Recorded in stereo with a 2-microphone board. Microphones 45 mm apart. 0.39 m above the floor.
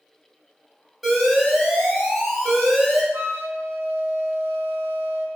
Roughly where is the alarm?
Centre.